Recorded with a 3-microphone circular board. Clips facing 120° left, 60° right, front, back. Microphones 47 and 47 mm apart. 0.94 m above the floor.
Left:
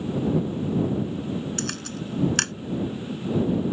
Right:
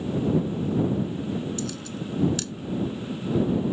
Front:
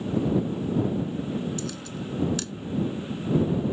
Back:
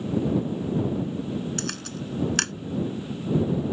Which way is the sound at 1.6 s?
150° left.